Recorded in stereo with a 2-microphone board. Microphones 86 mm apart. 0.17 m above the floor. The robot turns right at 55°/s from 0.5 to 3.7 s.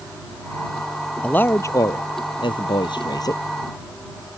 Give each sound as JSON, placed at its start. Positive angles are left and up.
{"t": 1.2, "sound": "a man speaking", "azimuth_deg": 15}